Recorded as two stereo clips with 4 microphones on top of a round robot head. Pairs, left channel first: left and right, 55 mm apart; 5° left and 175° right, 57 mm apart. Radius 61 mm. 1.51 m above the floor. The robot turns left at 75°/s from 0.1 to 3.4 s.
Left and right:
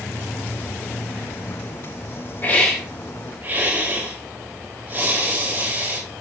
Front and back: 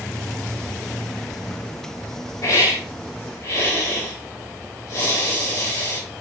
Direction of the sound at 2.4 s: 40° left.